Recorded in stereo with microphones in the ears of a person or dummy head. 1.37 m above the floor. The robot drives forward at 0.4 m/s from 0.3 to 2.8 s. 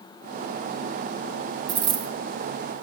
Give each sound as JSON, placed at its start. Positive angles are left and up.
{"t": 1.7, "sound": "a dropped coin", "side_deg": -65, "distance_m": 2.5}